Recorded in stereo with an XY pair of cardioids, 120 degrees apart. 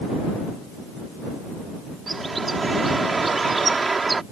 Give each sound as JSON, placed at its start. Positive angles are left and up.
{"t": 2.1, "sound": "a bird", "azimuth_deg": -25}